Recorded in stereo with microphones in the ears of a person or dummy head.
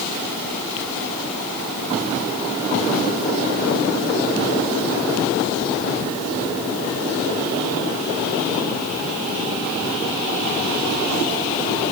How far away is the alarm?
I don't hear an alarm.